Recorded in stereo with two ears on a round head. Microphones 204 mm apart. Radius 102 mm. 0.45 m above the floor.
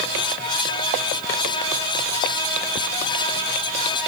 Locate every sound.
Only background noise.